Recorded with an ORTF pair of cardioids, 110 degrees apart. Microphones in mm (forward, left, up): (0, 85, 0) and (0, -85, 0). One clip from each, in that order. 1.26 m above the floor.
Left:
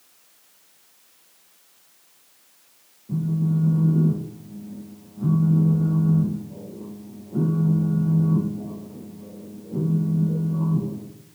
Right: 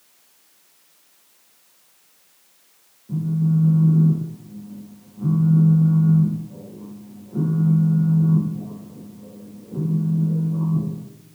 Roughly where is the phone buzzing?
Ahead.